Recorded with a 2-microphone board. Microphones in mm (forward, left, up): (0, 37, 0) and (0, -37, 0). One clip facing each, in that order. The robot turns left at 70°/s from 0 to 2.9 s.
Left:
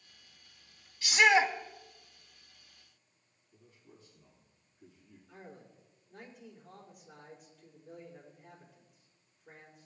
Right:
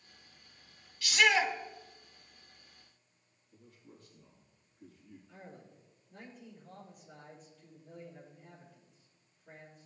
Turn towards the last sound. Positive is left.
turn(degrees=5)  # may be behind; listen again after turning